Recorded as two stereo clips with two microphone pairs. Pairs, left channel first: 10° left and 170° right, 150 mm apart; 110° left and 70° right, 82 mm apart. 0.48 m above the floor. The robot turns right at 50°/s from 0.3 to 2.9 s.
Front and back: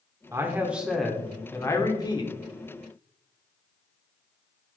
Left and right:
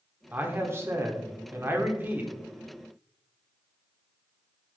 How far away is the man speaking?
About 1.5 m.